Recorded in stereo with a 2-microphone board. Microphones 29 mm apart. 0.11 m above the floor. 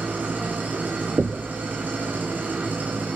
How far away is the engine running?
About 9.5 m.